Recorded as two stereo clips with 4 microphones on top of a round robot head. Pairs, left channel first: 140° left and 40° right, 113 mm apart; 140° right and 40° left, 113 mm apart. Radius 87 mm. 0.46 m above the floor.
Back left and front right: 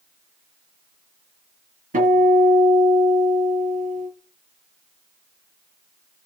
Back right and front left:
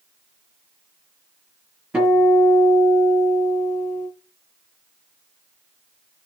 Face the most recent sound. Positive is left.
turn(degrees=-40)